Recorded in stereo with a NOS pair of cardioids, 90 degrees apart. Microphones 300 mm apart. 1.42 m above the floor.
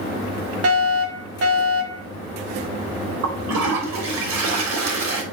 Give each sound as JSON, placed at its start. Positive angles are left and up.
{"t": 0.6, "sound": "a fire alarm", "azimuth_deg": -55, "distance_m": 2.5}
{"t": 3.2, "sound": "a toilet flushing", "azimuth_deg": -65, "distance_m": 3.5}